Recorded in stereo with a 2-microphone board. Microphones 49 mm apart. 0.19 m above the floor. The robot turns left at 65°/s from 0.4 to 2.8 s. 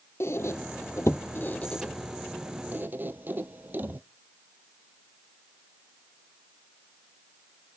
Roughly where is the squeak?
Left.